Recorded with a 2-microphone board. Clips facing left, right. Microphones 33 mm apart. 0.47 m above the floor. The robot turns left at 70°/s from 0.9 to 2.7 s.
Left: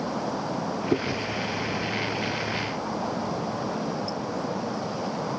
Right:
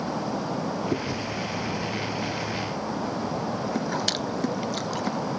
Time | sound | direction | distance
0.9 | chewing | 25° left (ahead or behind) | ?